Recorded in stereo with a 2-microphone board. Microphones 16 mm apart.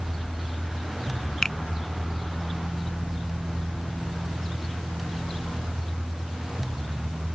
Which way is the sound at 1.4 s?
30° left (ahead or behind).